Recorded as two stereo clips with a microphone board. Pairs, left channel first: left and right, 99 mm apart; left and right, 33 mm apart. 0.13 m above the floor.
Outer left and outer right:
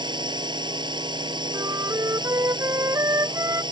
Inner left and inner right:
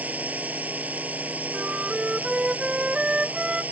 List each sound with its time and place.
0.0 s a drone: 50° right (ahead or behind)
1.5 s a flute: 35° right (ahead or behind)